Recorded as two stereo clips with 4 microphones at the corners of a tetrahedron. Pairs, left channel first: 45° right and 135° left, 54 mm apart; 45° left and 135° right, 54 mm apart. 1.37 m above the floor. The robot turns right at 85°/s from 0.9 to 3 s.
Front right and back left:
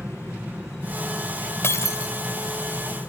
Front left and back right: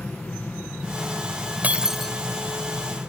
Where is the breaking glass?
80° right; by 2.1 s 35° right.